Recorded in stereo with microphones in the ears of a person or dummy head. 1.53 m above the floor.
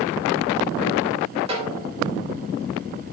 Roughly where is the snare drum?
Right.